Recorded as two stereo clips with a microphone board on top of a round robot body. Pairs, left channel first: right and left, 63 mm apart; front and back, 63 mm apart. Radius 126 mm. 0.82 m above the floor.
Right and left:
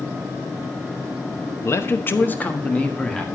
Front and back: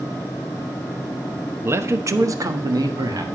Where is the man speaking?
130° right, 1.1 m; by 3.2 s 170° right, 2 m.